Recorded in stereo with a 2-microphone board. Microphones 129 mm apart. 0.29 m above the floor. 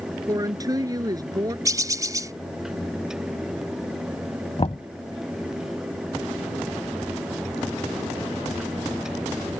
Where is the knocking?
50° left (ahead or behind).